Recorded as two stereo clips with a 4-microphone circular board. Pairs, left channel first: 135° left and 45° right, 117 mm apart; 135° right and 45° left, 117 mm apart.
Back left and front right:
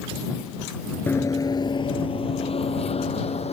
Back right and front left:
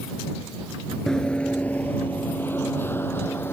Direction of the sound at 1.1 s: 155° left.